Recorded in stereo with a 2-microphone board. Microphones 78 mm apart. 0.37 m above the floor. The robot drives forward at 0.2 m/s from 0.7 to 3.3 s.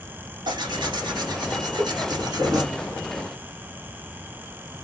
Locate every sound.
0.5 s tearing paper: 75° right (ahead or behind), 1.2 m; by 2.6 s 60° right (ahead or behind), 1.4 m
1.8 s a cowbell: 50° left (ahead or behind), 0.8 m